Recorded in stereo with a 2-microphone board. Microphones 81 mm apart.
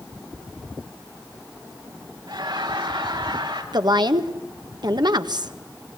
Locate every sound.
2.3 s laughter: 70° right (ahead or behind), 6 m
3.7 s a woman speaking: 60° right (ahead or behind), 1.5 m